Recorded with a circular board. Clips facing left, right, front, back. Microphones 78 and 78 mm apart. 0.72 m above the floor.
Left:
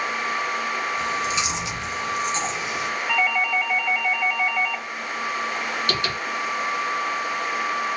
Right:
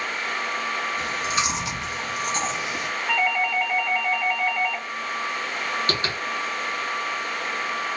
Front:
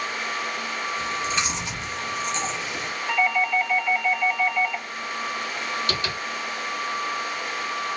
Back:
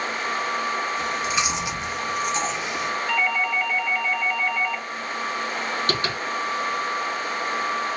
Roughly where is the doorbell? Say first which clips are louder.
Even, front 3 dB; right.